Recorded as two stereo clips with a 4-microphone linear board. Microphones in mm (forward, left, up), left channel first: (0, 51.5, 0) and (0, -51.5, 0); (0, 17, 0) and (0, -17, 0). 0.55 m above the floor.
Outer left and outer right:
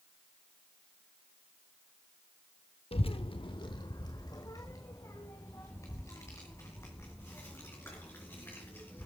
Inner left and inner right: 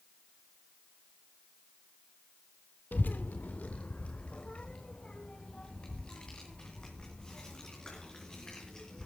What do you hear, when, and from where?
2.9 s a child speaking: 65° left (ahead or behind), 0.6 m; by 9.1 s 25° left (ahead or behind), 4 m